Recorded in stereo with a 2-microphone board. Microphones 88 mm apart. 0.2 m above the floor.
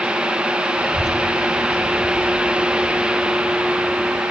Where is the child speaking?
55° right (ahead or behind), 1.8 m; by 4.2 s 30° left (ahead or behind), 1.3 m.